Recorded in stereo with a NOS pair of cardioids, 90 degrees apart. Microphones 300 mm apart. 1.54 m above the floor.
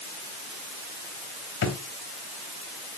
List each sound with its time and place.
1.6 s a drawer: 55° left, 3.5 m